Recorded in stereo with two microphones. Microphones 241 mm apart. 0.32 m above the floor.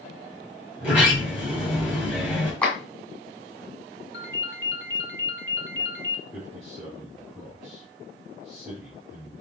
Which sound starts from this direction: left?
A ringtone, at 4.1 s.